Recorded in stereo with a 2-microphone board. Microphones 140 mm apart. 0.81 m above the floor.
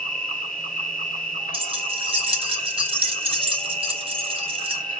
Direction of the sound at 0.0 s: 75° left (ahead or behind).